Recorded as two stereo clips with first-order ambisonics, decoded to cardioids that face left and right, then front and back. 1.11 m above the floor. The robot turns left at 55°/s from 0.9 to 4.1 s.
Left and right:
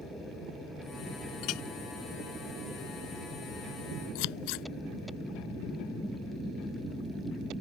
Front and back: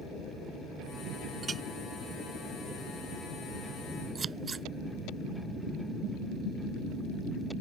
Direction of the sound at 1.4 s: 115° left.